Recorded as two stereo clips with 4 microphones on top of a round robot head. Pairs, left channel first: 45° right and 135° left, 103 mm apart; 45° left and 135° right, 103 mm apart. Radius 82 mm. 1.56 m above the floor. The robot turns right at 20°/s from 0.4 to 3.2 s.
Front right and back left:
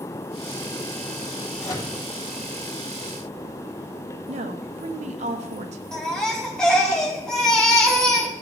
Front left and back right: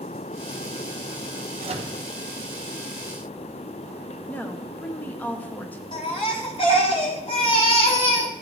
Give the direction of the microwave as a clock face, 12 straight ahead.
4 o'clock.